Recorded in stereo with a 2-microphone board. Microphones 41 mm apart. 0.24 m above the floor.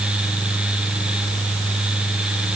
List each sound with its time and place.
Only background noise.